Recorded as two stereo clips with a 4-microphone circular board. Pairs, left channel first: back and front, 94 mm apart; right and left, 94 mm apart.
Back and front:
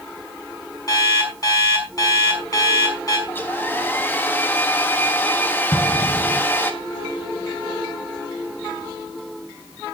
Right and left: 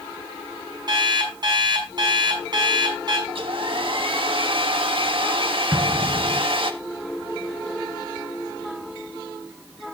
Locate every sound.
0.9 s an alarm clock: 130° left, 5.5 m
3.3 s a hair dryer: 110° left, 1.3 m
5.7 s an explosion: 150° left, 3.5 m